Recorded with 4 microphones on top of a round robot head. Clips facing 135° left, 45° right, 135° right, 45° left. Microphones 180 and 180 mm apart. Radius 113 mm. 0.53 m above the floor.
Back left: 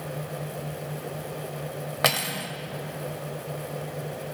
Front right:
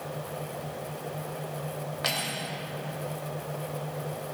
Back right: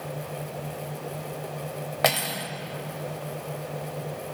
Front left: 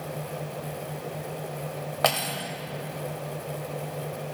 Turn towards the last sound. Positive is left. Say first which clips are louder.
# back left 5 dB, back right 1 dB
turn(degrees=145)